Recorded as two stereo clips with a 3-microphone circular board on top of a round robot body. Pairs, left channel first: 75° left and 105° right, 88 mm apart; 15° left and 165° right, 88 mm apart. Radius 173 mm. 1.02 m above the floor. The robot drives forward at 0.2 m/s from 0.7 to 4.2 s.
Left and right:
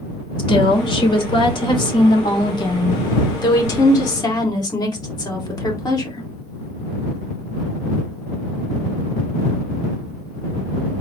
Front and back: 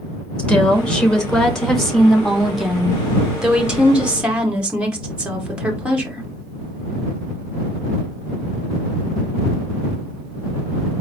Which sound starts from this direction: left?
A woman speaking, at 0.4 s.